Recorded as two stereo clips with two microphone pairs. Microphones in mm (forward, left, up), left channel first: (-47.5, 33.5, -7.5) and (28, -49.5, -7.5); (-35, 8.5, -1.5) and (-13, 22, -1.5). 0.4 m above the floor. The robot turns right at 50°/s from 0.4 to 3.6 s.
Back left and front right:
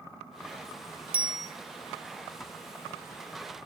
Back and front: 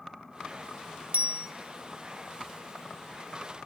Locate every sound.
1.1 s a bicycle bell: 30° left, 2 m; by 1.5 s 45° left, 2 m